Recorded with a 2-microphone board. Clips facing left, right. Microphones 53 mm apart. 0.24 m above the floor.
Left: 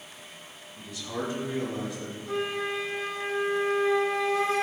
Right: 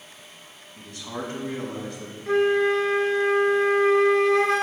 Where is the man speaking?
50° right (ahead or behind), 2.5 m.